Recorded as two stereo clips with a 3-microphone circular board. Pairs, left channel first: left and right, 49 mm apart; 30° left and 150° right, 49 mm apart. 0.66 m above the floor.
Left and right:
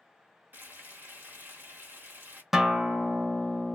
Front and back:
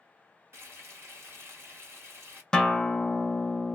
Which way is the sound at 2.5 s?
25° right.